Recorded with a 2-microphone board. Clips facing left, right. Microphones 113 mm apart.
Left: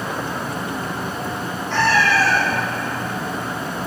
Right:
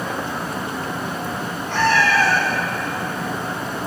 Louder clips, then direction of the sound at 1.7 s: Even; 55° right (ahead or behind).